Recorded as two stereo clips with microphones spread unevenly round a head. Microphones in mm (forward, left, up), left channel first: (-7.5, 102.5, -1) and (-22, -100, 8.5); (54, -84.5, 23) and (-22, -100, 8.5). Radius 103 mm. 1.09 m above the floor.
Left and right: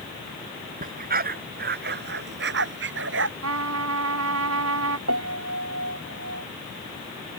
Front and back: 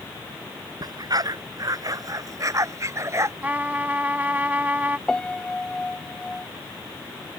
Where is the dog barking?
140° right; by 3.3 s 120° right.